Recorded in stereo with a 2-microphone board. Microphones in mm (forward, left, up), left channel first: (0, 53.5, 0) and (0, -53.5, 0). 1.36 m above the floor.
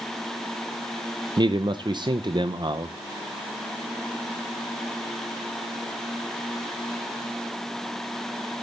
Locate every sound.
1.4 s a man speaking: 45° right (ahead or behind), 0.6 m